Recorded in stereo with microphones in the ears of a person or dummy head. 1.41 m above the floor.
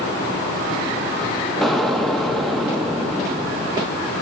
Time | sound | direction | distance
1.6 | an explosion | 5° left (ahead or behind) | 1.0 m